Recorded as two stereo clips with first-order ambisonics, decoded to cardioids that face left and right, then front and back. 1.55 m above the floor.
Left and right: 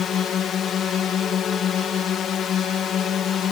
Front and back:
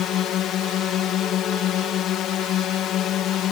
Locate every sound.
0.0 s a drone: 40° left